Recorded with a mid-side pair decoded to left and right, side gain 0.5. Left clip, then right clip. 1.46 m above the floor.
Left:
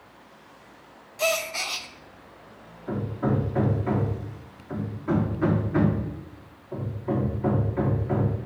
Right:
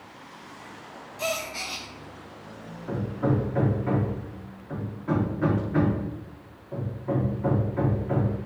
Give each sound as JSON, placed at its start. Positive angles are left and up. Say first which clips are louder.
{"t": 1.2, "sound": "a gasp", "louder": "left 4 dB", "azimuth_deg": 35, "distance_m": 0.8}
{"t": 2.9, "sound": "hammering", "louder": "even", "azimuth_deg": 10, "distance_m": 2.5}